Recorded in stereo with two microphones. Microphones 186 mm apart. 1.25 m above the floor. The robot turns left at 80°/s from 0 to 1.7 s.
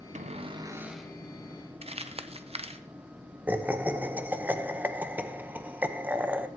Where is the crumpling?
35° right (ahead or behind), 0.6 m.